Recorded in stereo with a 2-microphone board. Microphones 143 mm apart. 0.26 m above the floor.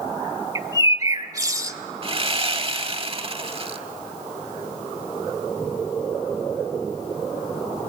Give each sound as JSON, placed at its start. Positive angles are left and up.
{"t": 0.6, "sound": "a bird", "side_deg": -25, "distance_m": 0.6}
{"t": 2.0, "sound": "sawing", "side_deg": -40, "distance_m": 0.8}